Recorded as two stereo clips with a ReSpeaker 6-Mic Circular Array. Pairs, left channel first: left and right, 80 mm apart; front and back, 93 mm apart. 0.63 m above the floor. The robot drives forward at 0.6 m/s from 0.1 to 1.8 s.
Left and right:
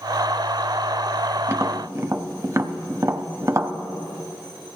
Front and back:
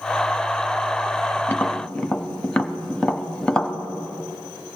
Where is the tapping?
55° right, 0.8 m; by 3.7 s 75° right, 0.7 m.